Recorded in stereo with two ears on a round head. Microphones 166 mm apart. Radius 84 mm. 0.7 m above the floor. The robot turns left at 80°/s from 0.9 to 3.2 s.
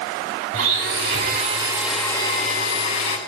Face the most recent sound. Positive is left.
turn(degrees=80)